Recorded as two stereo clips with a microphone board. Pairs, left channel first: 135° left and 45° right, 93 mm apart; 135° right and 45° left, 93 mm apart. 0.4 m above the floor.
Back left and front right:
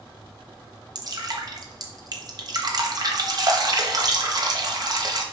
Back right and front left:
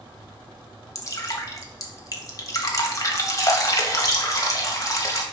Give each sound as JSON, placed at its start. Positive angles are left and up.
{"t": 0.9, "sound": "dripping", "azimuth_deg": -85, "distance_m": 1.2}